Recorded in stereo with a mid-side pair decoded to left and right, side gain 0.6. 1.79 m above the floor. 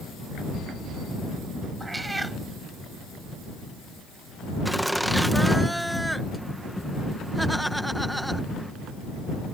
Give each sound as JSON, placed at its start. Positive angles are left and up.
{"t": 1.8, "sound": "a cat meowing", "azimuth_deg": -15}
{"t": 4.7, "sound": "laughter", "azimuth_deg": -5}